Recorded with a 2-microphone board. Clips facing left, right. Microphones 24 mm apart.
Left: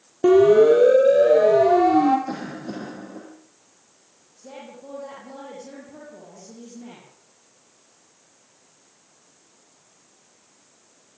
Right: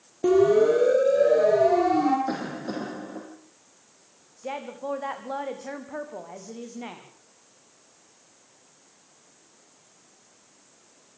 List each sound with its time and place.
0.2 s a siren: 25° left (ahead or behind), 4.5 m
2.3 s a cough: 20° right (ahead or behind), 4.5 m
4.4 s a woman speaking: 70° right (ahead or behind), 6.5 m